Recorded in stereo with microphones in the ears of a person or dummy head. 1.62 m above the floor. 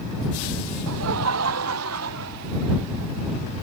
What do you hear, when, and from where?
0.9 s laughter: 80° right; by 2.8 s 85° right